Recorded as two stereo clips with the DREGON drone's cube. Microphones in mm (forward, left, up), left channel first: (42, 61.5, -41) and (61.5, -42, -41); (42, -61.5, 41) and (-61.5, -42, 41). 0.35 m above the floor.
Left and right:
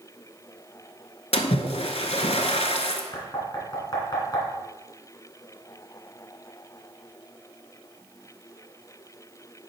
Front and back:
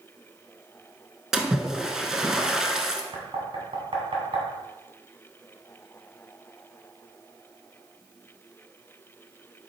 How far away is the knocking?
About 1.9 m.